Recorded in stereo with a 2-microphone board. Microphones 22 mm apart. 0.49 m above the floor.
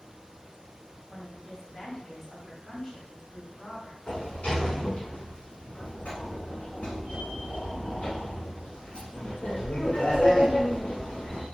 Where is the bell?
I don't hear a bell.